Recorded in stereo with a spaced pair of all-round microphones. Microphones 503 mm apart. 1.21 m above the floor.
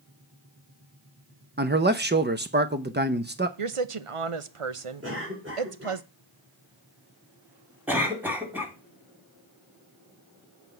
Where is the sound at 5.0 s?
25° right (ahead or behind), 4 m.